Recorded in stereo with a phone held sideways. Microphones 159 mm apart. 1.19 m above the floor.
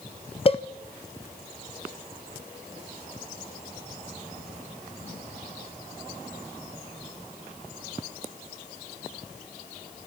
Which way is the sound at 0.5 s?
35° left (ahead or behind).